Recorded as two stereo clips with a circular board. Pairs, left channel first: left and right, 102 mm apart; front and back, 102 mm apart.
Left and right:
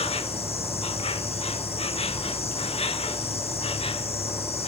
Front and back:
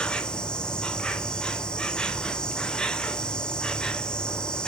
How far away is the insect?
About 0.9 m.